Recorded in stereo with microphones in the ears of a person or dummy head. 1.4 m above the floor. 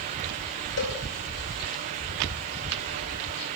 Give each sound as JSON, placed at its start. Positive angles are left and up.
{"t": 0.8, "sound": "a cowbell", "side_deg": 60, "distance_m": 4.0}